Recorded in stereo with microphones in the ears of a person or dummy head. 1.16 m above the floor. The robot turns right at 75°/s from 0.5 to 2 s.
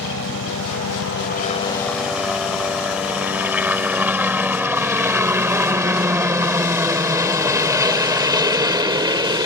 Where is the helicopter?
65° left (ahead or behind); by 9.5 s 20° right (ahead or behind).